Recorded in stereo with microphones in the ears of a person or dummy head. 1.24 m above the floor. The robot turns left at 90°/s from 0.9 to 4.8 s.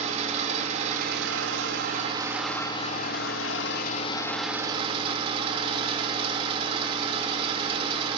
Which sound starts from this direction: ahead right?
An engine running, at 0.0 s.